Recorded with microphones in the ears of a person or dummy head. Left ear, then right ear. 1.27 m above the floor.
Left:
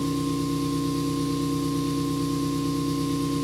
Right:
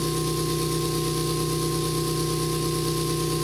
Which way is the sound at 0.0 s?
65° right (ahead or behind).